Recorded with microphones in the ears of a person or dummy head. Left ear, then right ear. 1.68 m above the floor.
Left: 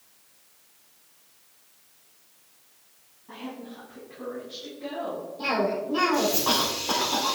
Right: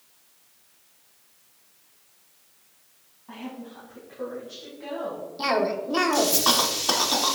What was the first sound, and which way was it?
A woman speaking, 50° right (ahead or behind).